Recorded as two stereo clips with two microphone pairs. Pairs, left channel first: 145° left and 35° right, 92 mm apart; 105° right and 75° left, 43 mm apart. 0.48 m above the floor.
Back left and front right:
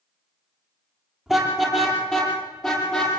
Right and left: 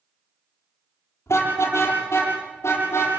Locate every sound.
1.3 s a car horn: 125° right, 6.5 m; by 3.1 s 135° right, 8 m